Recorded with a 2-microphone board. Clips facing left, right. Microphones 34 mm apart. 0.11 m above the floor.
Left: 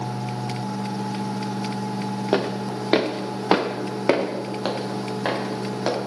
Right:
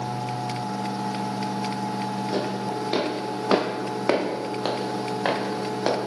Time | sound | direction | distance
2.3 | footsteps | 45° left (ahead or behind) | 1.8 m